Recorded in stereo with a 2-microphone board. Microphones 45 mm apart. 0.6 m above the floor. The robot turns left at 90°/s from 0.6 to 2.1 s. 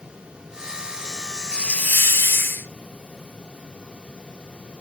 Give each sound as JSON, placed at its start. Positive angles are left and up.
{"t": 1.5, "sound": "a hiss", "azimuth_deg": 160, "distance_m": 1.9}